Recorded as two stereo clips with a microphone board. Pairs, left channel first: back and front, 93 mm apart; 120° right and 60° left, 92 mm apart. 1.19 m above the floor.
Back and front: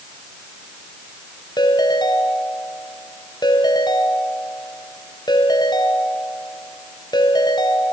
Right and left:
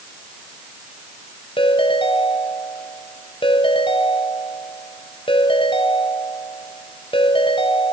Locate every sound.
1.6 s a ringtone: 140° right, 4.5 m